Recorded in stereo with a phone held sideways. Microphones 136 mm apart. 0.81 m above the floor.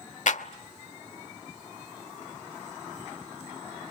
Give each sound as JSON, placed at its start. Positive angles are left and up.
{"t": 0.3, "sound": "a clap", "side_deg": 65, "distance_m": 1.0}